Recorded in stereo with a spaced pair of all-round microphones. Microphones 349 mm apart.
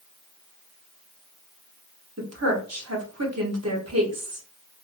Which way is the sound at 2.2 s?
45° right (ahead or behind).